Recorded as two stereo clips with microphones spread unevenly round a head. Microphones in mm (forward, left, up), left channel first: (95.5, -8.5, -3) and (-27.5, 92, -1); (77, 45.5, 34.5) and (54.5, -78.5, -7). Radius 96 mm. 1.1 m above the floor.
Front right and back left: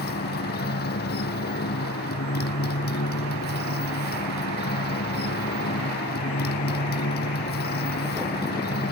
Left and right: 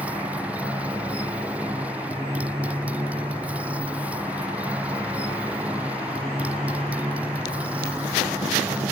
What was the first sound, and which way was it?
A motorcycle, 20° right.